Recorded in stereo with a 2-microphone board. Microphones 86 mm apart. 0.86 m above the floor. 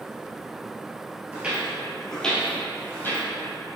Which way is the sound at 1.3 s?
20° right (ahead or behind).